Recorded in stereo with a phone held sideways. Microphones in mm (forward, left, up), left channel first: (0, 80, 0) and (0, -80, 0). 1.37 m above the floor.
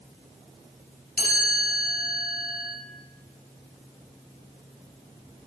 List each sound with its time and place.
1.2 s a chime: 60° left (ahead or behind), 6 m